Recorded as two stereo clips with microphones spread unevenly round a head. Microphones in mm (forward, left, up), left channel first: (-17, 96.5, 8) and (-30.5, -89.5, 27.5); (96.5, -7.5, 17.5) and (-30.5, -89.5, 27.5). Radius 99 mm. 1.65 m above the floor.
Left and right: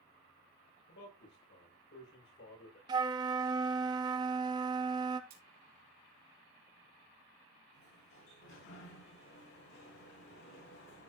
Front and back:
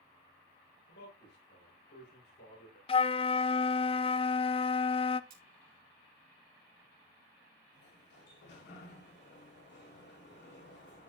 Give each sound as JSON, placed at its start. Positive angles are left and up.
{"t": 0.9, "sound": "a man speaking", "azimuth_deg": 50, "distance_m": 6.5}
{"t": 2.9, "sound": "a flute", "azimuth_deg": -25, "distance_m": 0.5}
{"t": 5.3, "sound": "cutlery clinking", "azimuth_deg": -130, "distance_m": 3.0}
{"t": 7.7, "sound": "a sliding door", "azimuth_deg": 40, "distance_m": 7.0}